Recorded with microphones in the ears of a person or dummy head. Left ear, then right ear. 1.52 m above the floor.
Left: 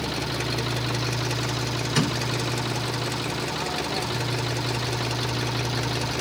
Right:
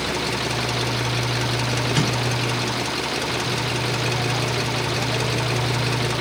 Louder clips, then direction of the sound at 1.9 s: Even; 65° left (ahead or behind).